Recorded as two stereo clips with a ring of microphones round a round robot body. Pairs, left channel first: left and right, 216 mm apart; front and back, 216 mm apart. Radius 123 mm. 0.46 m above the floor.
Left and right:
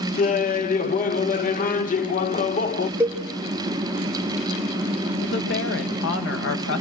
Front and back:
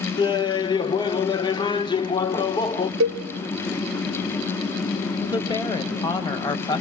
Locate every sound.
0.2 s laughter: 60° left, 0.9 m
3.0 s a cowbell: 170° right, 0.8 m
5.2 s a woman speaking: 70° left, 2.5 m